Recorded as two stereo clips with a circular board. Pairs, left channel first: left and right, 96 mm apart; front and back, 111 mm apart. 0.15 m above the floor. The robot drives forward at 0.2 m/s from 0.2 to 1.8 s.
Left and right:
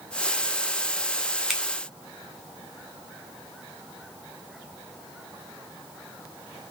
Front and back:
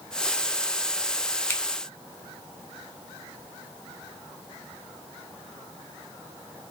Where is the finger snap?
5° right, 0.8 m.